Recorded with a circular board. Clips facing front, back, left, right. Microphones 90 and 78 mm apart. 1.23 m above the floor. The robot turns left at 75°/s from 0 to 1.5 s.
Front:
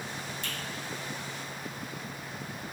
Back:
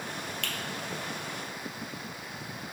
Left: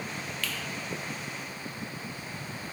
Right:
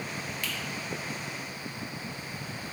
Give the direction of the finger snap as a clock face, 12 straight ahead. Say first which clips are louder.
Back 2 dB, left 2 dB; 5 o'clock.